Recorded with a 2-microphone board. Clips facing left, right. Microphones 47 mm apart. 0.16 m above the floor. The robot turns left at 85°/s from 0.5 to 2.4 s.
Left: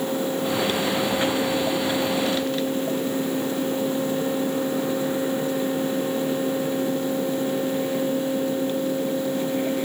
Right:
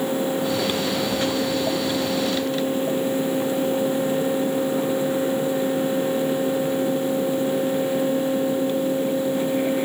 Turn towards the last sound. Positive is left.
No sound to turn to.